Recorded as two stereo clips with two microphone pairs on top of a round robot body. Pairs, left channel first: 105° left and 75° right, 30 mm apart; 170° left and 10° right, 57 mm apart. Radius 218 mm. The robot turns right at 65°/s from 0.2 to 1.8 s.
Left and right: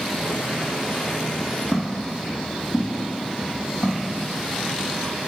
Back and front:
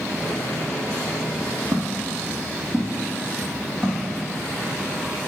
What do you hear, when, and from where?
1.7 s footsteps: 40° left, 0.9 m; by 4.7 s 95° left, 4 m